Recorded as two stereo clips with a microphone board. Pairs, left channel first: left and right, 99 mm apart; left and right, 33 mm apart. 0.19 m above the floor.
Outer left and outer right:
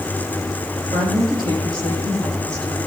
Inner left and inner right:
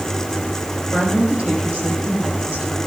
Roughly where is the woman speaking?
Right.